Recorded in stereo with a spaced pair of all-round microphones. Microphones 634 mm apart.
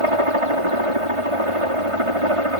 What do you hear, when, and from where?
0.0 s a helicopter: 55° right (ahead or behind)